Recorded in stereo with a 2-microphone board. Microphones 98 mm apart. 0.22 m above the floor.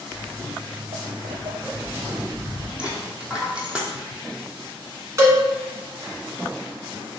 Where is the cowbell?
35° right (ahead or behind), 1.2 m.